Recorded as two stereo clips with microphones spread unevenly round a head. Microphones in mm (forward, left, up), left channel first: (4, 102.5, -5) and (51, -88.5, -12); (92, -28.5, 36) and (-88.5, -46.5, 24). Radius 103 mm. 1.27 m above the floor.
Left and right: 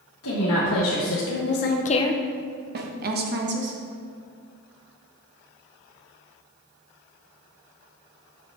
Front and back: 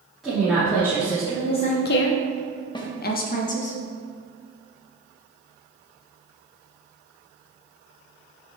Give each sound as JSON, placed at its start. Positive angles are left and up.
{"t": 0.2, "sound": "a woman speaking", "azimuth_deg": 95, "distance_m": 1.7}
{"t": 2.8, "sound": "a snare drum", "azimuth_deg": -50, "distance_m": 0.9}